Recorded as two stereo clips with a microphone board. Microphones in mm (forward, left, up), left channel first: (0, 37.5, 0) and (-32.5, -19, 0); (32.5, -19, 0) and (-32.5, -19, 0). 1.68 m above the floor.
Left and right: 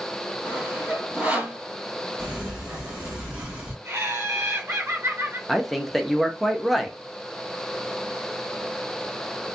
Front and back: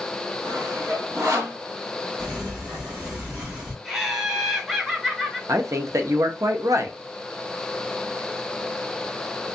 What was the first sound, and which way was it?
Sawing, 175° left.